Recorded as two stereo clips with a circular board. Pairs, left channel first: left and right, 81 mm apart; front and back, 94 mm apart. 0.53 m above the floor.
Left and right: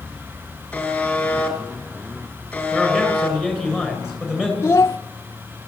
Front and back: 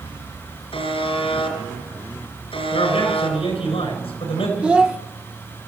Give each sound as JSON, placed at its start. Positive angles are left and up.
{"t": 0.7, "sound": "a buzzer", "azimuth_deg": 15, "distance_m": 4.0}
{"t": 2.7, "sound": "a man speaking", "azimuth_deg": -5, "distance_m": 7.5}
{"t": 4.6, "sound": "a child speaking", "azimuth_deg": 115, "distance_m": 0.6}